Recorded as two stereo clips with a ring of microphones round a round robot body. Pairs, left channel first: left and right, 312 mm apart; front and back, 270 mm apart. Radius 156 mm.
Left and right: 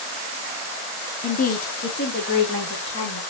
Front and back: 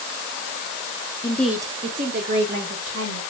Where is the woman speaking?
50° left, 0.5 m; by 3.2 s 145° left, 1.4 m.